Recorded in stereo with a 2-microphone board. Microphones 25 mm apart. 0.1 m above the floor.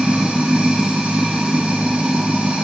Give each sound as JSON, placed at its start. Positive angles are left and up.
{"t": 0.0, "sound": "running water", "side_deg": -65, "distance_m": 3.0}